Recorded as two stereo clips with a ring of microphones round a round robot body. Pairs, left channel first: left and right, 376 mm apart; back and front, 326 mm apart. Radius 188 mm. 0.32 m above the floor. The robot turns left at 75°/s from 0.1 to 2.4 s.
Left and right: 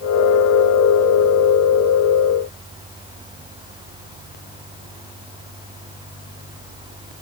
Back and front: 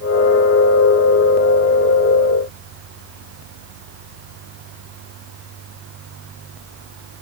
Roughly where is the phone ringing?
I don't hear a phone ringing.